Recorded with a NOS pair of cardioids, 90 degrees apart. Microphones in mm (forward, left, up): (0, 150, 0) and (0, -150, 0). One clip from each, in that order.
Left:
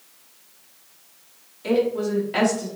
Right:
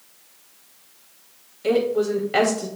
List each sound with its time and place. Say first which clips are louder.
1.6 s a woman speaking: right 2 dB; 25° right, 2.5 m